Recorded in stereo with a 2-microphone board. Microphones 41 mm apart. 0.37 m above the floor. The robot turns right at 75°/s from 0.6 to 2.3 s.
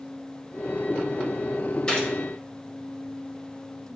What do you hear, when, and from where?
1.9 s a gunshot: 20° left (ahead or behind), 1.8 m; by 2.1 s 30° left (ahead or behind), 1.8 m